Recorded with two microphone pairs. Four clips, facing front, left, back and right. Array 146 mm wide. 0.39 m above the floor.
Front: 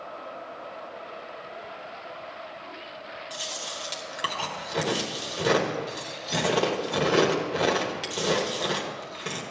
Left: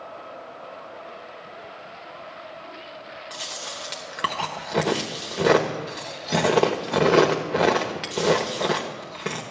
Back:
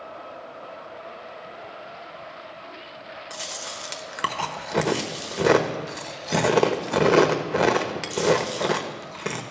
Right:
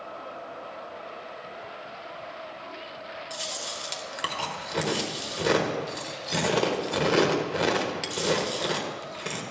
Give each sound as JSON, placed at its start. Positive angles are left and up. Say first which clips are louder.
{"t": 3.3, "sound": "chewing", "louder": "even, back 2 dB", "azimuth_deg": 140, "distance_m": 1.1}